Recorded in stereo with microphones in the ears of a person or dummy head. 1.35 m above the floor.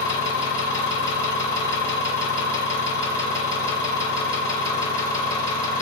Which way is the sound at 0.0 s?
20° left (ahead or behind).